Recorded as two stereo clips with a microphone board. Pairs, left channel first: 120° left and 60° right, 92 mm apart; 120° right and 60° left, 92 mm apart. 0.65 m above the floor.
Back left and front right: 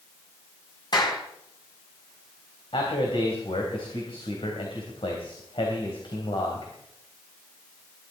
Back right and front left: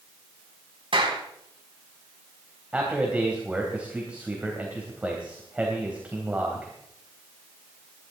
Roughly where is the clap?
Left.